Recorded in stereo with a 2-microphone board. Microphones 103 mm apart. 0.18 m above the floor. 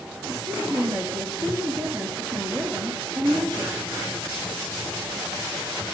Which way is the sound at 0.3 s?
40° right (ahead or behind).